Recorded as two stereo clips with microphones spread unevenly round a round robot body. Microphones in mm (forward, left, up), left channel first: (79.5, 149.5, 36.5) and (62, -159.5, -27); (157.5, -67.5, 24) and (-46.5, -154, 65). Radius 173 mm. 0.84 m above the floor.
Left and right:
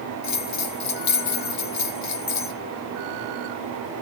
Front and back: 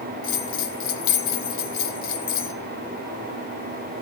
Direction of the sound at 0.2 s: 45° left.